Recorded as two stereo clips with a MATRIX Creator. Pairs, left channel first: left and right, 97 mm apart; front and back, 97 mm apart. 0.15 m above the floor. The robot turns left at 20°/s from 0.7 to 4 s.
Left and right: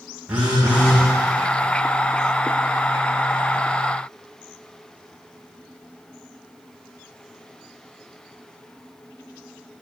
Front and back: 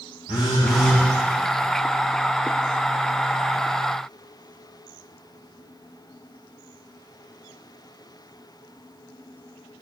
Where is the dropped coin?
No dropped coin in this recording.